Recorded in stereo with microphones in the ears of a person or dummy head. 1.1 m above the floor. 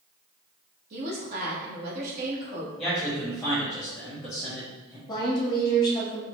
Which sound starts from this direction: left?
A woman speaking, at 5.1 s.